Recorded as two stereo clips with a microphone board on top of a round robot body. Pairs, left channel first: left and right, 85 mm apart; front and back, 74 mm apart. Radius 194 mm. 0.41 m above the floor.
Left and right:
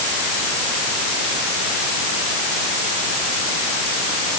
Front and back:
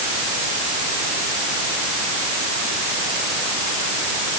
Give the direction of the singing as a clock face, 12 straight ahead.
No singing in this recording.